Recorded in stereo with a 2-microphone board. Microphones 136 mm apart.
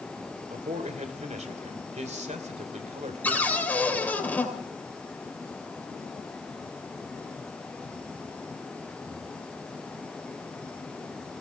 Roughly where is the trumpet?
No trumpet in this recording.